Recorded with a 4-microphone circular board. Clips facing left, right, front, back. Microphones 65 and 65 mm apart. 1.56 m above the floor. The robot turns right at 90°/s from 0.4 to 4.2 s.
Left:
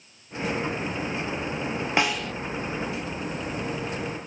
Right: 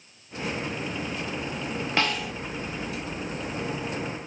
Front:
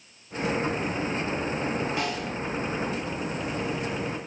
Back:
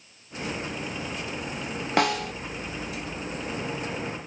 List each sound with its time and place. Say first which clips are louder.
2.0 s a snare drum: left 1 dB, back 5 dB; 165° left, 0.6 m; by 2.3 s 165° right, 0.6 m